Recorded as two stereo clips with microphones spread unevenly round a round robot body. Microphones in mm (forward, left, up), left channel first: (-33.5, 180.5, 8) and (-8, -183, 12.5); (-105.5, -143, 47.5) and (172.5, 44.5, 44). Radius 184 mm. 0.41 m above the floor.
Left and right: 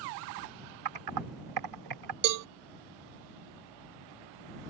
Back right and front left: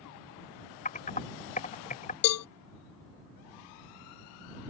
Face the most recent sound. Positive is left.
turn(degrees=-120)